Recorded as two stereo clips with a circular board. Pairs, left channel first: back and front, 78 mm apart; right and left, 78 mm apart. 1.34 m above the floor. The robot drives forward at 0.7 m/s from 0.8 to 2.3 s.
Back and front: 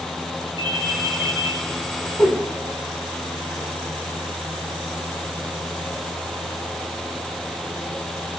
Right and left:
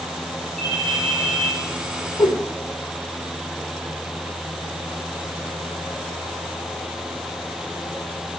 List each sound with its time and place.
0.6 s a ringtone: 175° right, 3.5 m
2.2 s a whoosh: 115° right, 1.1 m